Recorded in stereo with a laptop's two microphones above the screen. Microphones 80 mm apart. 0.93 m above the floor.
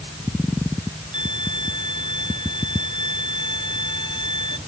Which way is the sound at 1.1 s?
70° left (ahead or behind).